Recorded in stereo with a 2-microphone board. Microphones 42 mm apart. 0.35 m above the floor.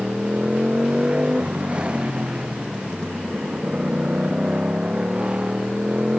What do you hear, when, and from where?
0.0 s a motorcycle: 25° right (ahead or behind)